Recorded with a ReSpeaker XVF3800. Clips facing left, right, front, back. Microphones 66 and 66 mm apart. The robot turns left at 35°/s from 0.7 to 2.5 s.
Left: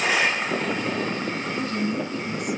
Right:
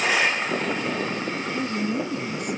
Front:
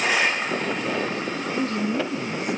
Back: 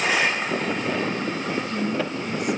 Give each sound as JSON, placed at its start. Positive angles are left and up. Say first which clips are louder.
{"t": 1.6, "sound": "a woman speaking", "louder": "right 1 dB, front 3 dB", "azimuth_deg": -25, "distance_m": 3.0}